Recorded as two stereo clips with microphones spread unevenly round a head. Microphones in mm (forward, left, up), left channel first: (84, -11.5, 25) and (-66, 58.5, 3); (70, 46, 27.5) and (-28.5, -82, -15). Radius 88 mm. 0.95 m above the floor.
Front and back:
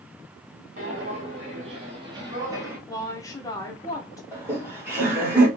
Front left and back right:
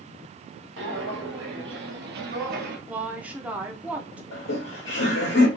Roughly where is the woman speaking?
Right.